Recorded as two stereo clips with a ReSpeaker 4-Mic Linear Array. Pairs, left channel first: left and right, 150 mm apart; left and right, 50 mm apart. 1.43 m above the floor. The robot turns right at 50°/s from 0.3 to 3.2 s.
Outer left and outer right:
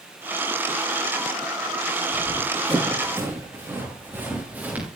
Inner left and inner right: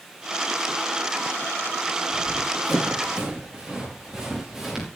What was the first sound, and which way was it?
Running footsteps, 25° left (ahead or behind).